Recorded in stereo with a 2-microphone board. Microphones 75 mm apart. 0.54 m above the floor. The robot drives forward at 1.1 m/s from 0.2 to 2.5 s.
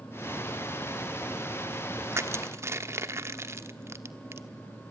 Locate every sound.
2.1 s crushing: 35° right (ahead or behind), 1.1 m